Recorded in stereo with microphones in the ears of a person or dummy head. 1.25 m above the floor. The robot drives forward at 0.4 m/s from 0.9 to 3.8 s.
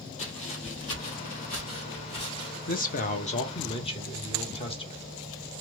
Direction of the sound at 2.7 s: 45° left (ahead or behind).